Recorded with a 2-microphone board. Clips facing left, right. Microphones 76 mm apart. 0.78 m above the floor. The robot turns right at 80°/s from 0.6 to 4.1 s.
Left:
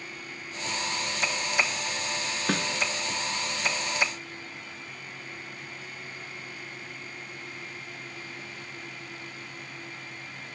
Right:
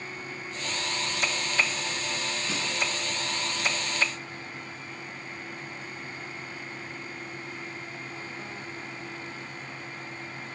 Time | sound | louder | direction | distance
2.5 | a snare drum | left 9 dB | 65° left (ahead or behind) | 2.5 m